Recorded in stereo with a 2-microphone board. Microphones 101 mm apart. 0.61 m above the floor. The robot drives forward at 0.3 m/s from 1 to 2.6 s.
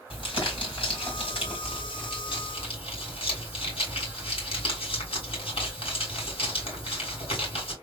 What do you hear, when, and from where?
0.1 s crumpling: 65° left (ahead or behind), 2.5 m; by 7.7 s 70° left (ahead or behind), 2.5 m